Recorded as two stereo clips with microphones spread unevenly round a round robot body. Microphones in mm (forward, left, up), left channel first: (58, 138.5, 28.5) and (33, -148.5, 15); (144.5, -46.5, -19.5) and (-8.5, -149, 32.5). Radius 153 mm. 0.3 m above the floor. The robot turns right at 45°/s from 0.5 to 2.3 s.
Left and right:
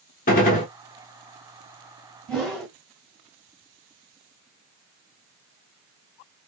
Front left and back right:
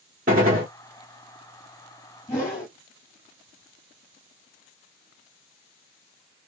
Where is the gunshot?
150° left, 0.8 m; by 0.7 s 160° left, 0.8 m.